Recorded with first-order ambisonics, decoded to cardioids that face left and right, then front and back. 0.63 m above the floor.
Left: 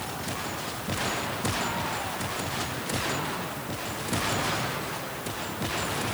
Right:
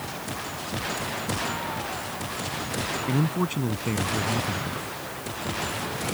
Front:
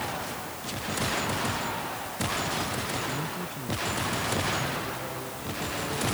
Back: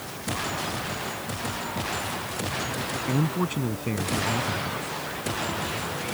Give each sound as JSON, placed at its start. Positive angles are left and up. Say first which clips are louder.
{"t": 3.0, "sound": "a man speaking", "louder": "right 3 dB, back 5 dB", "azimuth_deg": -130}